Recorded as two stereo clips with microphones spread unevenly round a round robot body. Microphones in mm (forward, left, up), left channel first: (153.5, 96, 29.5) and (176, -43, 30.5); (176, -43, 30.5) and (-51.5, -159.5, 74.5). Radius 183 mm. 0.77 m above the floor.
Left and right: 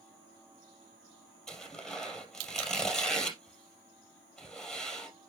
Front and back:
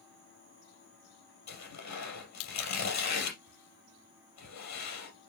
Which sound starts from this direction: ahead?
Tearing paper, at 1.5 s.